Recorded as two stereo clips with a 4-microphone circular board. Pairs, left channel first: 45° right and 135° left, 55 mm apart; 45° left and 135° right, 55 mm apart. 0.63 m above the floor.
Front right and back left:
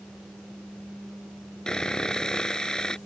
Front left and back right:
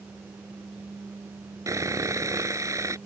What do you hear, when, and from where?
1.7 s sawing: 120° right